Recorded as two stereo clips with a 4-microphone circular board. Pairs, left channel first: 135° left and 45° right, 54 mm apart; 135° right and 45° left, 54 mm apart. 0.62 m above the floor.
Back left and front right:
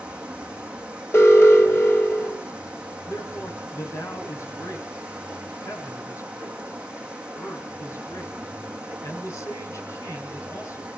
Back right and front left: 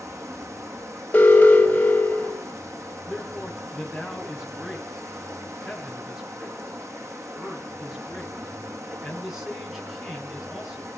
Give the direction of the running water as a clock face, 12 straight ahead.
11 o'clock.